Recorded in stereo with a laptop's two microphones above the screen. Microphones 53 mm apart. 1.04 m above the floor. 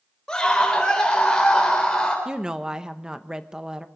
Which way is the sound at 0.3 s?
10° left (ahead or behind).